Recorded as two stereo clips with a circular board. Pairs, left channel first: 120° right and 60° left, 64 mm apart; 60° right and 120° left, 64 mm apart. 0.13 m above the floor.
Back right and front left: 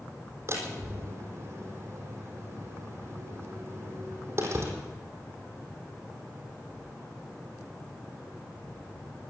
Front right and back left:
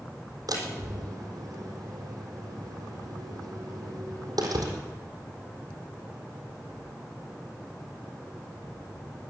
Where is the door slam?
105° left, 3.5 m.